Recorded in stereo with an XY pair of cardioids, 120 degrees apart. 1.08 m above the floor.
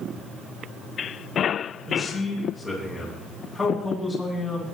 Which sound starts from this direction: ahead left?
A man speaking, at 1.9 s.